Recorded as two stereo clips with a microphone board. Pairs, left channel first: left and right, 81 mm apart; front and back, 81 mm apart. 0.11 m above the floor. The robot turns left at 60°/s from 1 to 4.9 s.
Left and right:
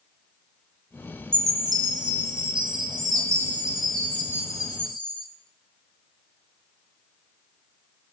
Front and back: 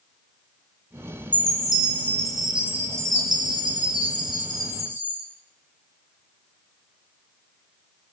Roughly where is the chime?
Ahead right.